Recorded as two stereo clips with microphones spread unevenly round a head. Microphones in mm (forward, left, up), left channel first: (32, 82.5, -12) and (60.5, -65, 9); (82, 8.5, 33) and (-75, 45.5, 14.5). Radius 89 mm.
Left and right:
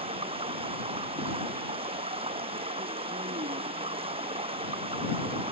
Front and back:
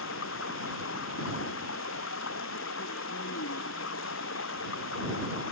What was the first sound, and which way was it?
Running water, 30° right.